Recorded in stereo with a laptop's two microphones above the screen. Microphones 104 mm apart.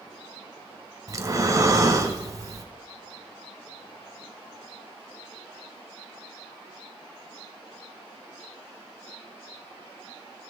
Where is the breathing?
30° right (ahead or behind), 0.9 m.